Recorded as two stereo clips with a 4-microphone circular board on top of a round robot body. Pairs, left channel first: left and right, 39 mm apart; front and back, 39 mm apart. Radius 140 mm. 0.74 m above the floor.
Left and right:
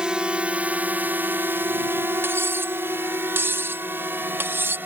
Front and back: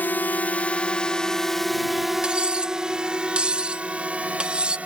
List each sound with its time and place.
0.0 s a drone: 25° right; by 4.9 s 125° right
2.2 s cutlery clinking: 115° right